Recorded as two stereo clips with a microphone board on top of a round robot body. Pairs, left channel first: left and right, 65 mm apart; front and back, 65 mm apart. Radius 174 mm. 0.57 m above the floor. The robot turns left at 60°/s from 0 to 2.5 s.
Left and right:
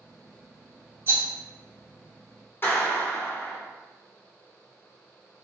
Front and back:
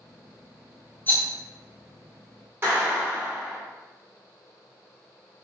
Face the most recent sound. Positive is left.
turn(degrees=135)